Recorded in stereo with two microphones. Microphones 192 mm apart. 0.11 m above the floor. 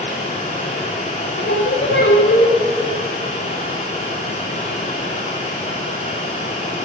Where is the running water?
35° left (ahead or behind), 8.5 m.